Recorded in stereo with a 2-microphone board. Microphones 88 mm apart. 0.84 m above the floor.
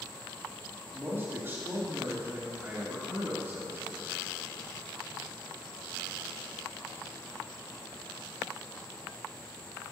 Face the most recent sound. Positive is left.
turn(degrees=-25)  # may be behind; listen again after turning